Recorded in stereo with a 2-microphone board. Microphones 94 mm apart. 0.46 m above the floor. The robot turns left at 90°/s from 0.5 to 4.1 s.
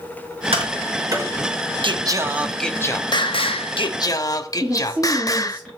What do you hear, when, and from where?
0.5 s tapping: 85° right, 4.5 m; by 1.3 s 20° right (ahead or behind), 4.5 m
1.8 s singing: 120° right, 0.7 m; by 5.6 s 40° left, 0.7 m
4.6 s a woman speaking: 10° right (ahead or behind), 5.5 m